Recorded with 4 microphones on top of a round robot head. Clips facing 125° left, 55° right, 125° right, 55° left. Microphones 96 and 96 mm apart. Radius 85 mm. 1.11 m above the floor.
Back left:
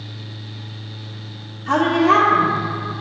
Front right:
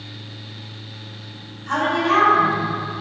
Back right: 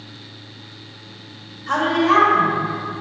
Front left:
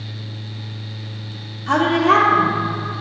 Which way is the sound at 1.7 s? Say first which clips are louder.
Back left 4 dB, front left 2 dB; 95° left.